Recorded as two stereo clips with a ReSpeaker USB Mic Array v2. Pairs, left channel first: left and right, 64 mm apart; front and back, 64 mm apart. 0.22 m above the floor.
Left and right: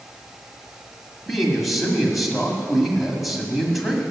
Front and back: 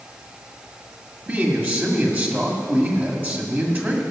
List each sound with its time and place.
1.3 s a man speaking: 175° right, 1.8 m